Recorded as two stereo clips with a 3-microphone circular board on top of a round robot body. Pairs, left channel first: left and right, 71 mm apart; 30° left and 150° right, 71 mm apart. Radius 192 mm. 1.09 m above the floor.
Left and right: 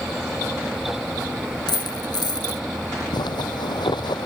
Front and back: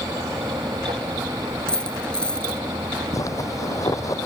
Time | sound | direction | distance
1.7 | a dropped coin | 105° left | ?
3.1 | a zipper | 75° left | ?